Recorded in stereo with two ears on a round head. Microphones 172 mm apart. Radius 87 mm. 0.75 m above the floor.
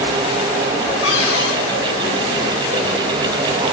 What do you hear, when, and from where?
1.0 s a cupboard door: 80° left, 5 m